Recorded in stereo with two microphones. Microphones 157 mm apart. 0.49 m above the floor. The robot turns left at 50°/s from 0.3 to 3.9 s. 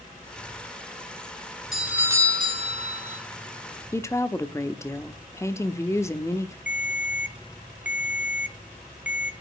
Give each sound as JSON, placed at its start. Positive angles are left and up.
{"t": 1.7, "sound": "a doorbell", "azimuth_deg": 0, "distance_m": 2.5}
{"t": 3.9, "sound": "a woman speaking", "side_deg": 20, "distance_m": 0.9}
{"t": 6.7, "sound": "a ringtone", "side_deg": -10, "distance_m": 0.7}